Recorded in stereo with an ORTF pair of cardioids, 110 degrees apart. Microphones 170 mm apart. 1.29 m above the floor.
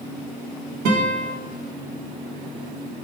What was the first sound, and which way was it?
A guitar, 65° right.